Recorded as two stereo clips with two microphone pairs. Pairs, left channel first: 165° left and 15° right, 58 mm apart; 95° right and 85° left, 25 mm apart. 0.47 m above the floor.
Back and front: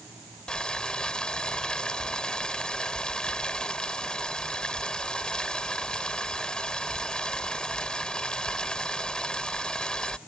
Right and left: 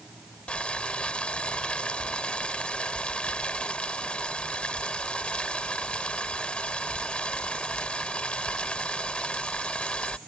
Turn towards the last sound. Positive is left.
turn(degrees=-125)